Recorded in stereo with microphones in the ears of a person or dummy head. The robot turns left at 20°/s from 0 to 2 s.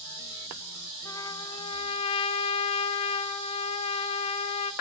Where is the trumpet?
15° left (ahead or behind), 0.7 m; by 4.7 s 25° left (ahead or behind), 0.7 m.